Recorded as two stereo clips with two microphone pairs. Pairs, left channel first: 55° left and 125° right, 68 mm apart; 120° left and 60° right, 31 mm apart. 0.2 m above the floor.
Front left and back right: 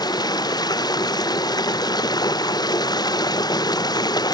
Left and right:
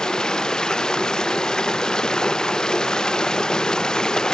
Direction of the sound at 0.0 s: 50° left.